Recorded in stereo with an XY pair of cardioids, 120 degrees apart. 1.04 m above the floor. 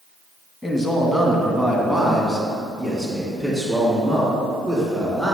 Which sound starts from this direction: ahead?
A man speaking, at 0.6 s.